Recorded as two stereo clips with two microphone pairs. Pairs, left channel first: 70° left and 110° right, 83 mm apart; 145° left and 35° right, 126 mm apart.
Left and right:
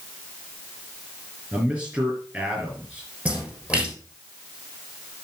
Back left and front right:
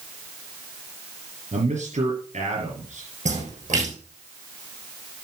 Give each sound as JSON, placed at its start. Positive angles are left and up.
{"t": 1.5, "sound": "a man speaking", "azimuth_deg": -40, "distance_m": 5.0}
{"t": 3.2, "sound": "a splash", "azimuth_deg": -40, "distance_m": 6.0}